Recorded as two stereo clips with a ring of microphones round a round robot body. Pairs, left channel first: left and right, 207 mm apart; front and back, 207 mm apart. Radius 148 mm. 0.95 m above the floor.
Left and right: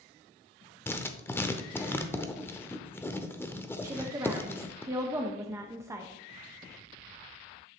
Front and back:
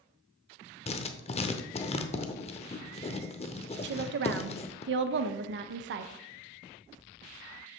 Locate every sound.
0.9 s writing: 20° left, 0.6 m
3.8 s a woman speaking: 165° right, 0.7 m